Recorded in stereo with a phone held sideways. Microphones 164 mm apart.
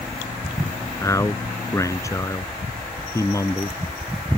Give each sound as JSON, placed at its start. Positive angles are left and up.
{"t": 1.0, "sound": "a man speaking", "side_deg": 20}